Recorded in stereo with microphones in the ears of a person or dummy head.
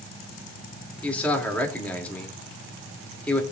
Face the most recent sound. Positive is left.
turn(degrees=10)  # may be behind; listen again after turning